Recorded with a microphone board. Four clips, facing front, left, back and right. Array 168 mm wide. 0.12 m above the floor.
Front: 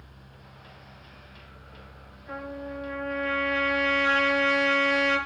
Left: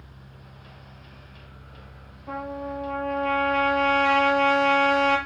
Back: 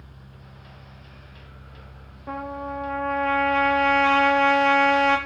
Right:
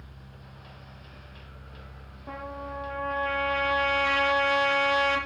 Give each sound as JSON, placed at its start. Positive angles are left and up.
{"t": 2.3, "sound": "a trumpet", "azimuth_deg": -165, "distance_m": 4.5}